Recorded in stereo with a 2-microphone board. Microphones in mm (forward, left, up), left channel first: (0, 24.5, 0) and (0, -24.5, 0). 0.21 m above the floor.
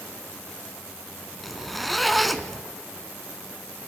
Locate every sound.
1.4 s a zipper: centre (ahead or behind), 1.2 m